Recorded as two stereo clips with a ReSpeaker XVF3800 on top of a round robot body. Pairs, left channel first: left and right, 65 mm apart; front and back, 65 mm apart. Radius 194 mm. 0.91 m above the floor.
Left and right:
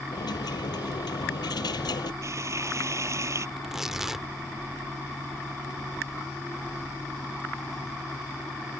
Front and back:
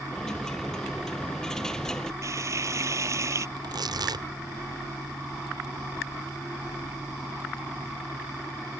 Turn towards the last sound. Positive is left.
turn(degrees=-175)